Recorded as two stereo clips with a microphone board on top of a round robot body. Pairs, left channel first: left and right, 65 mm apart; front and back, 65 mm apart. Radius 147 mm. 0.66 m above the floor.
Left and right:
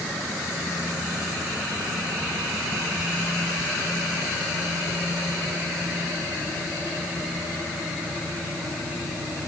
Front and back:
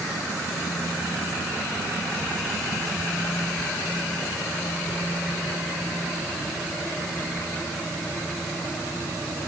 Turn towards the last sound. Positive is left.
No sound to turn to.